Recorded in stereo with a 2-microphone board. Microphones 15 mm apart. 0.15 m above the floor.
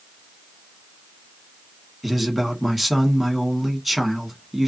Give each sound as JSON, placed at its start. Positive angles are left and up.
{"t": 2.0, "sound": "a man speaking", "side_deg": -5, "distance_m": 1.2}